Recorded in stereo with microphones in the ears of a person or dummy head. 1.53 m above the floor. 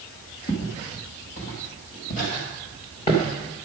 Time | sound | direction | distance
0.5 | footsteps | 55° left (ahead or behind) | 2.5 m